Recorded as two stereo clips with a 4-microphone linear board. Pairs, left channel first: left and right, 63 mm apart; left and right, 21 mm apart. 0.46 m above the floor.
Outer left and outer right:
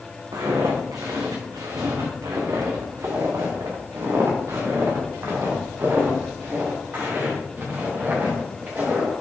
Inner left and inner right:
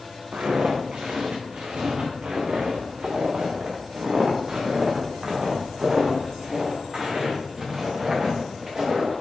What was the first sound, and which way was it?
Footsteps, 80° right.